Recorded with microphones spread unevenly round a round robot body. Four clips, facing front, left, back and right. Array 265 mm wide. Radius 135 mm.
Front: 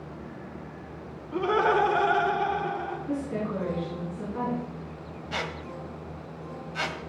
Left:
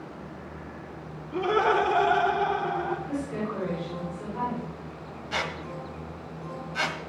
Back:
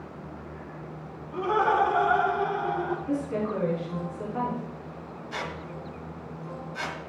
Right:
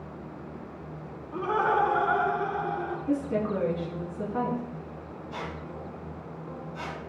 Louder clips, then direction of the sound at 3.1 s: Right 4 dB, back 2 dB; 95° right.